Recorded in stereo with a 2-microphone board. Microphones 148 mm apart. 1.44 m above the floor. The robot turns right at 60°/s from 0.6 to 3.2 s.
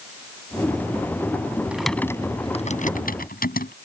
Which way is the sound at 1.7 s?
10° right (ahead or behind).